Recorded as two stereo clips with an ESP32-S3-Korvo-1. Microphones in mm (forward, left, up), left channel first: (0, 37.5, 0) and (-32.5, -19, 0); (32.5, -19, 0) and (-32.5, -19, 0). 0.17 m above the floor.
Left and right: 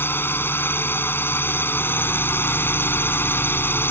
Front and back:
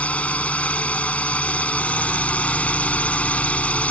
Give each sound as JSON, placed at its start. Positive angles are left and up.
{"t": 0.0, "sound": "a drone", "azimuth_deg": 50}